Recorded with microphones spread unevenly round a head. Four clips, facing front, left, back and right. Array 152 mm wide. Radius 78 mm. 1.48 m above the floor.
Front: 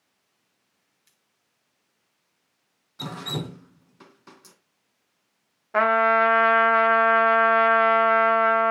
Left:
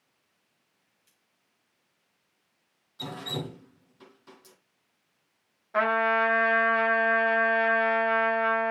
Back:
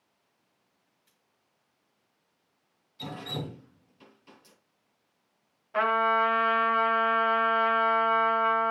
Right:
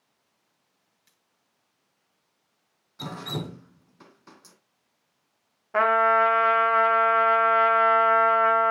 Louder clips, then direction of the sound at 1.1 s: Right 3 dB, even; 50° right.